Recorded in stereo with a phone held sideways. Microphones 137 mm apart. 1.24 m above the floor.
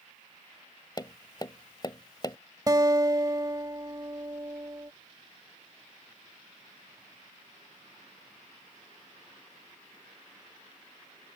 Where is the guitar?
30° right (ahead or behind).